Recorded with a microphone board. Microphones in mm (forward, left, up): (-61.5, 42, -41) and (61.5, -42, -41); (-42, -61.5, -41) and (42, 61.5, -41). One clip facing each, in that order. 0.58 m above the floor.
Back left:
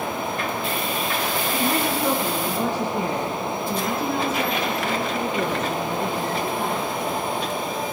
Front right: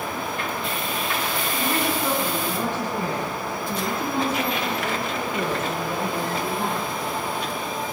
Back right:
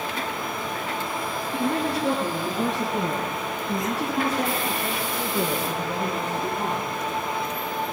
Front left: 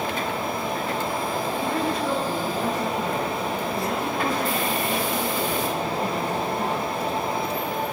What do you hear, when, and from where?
1.5 s a woman speaking: 135° right, 5.5 m; by 6.9 s 110° right, 11.5 m